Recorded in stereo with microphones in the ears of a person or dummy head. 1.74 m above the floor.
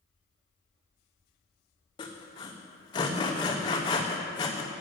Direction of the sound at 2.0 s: 20° left (ahead or behind).